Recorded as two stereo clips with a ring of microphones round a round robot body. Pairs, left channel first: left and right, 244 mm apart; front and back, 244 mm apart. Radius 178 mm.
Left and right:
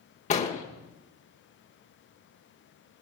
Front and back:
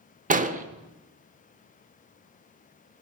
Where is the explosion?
140° left, 0.9 m.